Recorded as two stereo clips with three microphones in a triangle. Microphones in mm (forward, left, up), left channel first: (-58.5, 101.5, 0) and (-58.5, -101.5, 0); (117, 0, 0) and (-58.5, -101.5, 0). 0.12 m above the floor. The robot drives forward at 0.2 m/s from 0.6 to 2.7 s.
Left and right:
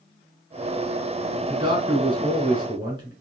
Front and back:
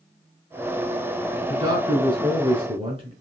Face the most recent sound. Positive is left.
turn(degrees=-130)